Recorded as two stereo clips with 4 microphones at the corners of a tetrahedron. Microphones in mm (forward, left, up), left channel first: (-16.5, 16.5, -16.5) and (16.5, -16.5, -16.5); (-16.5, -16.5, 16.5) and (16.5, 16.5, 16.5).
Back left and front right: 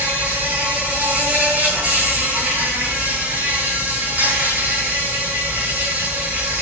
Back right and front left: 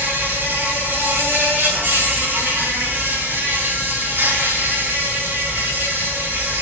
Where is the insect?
15° left, 5 m.